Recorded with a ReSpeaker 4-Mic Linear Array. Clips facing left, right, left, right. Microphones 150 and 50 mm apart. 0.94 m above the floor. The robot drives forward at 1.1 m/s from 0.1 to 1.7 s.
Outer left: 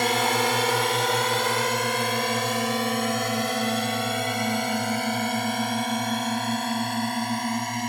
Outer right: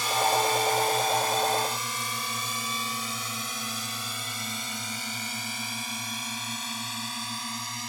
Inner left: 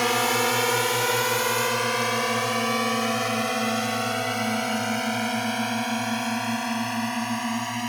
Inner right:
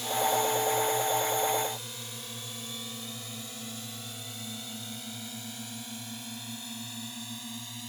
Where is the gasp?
No gasp in this recording.